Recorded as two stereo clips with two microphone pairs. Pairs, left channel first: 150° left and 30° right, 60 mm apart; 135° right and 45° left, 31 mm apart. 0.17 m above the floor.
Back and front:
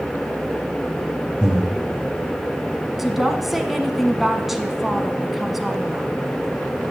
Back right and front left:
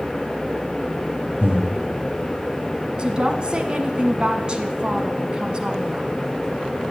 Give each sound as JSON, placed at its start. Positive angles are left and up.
{"t": 1.4, "sound": "breathing", "azimuth_deg": 45, "distance_m": 2.5}
{"t": 3.0, "sound": "a woman speaking", "azimuth_deg": 55, "distance_m": 1.2}